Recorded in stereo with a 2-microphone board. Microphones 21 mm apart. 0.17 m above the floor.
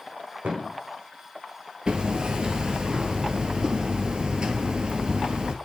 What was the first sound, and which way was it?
A thud, 70° right (ahead or behind).